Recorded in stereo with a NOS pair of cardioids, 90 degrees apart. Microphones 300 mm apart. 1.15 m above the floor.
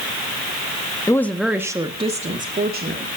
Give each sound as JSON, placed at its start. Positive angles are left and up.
{"t": 1.1, "sound": "a woman speaking", "azimuth_deg": 10, "distance_m": 1.4}